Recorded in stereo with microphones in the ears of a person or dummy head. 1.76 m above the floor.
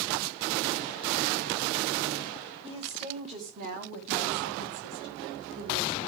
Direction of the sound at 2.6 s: 25° right (ahead or behind).